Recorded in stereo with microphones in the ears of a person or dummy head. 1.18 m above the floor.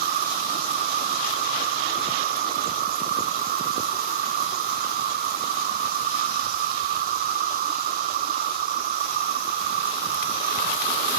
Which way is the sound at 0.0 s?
35° right (ahead or behind).